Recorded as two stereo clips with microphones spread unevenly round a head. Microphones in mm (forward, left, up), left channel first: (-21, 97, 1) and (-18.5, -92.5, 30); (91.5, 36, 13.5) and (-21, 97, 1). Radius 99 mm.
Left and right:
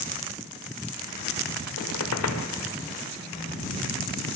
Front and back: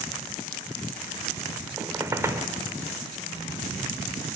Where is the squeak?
80° left, 1.7 m.